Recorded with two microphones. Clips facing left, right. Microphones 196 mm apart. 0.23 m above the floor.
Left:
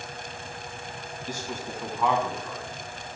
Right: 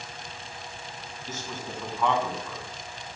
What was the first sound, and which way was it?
A man speaking, 15° left (ahead or behind).